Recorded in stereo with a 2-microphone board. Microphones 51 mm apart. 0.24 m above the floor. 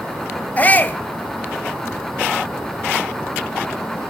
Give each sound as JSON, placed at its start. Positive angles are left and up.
{"t": 0.6, "sound": "a shout", "side_deg": 30, "distance_m": 1.1}